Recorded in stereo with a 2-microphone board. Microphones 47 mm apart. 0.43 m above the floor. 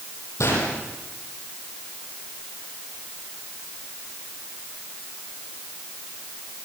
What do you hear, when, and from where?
0.4 s a gunshot: 85° left, 9.5 m